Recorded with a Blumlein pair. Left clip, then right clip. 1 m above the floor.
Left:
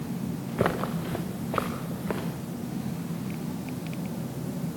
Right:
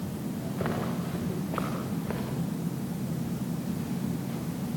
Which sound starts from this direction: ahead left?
Footsteps, at 0.6 s.